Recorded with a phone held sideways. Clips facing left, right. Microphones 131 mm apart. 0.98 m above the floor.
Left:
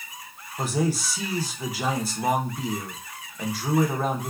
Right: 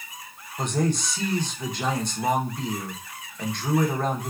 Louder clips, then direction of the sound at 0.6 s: Even; 5° left (ahead or behind).